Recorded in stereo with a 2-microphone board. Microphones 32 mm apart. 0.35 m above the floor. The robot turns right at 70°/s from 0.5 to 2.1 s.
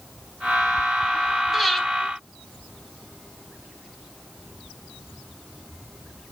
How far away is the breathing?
About 0.9 m.